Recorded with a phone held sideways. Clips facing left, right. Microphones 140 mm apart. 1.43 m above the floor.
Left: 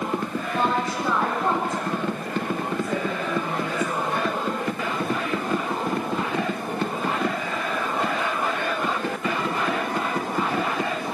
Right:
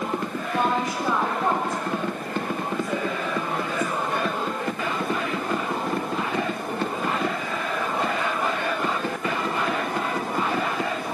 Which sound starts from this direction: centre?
A woman speaking, at 0.5 s.